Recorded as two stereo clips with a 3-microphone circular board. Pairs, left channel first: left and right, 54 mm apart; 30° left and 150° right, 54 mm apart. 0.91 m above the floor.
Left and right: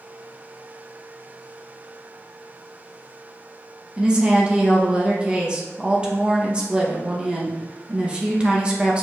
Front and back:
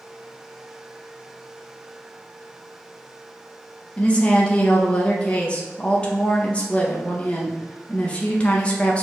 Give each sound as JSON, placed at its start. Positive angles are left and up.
{"t": 4.0, "sound": "a woman speaking", "azimuth_deg": -30, "distance_m": 0.8}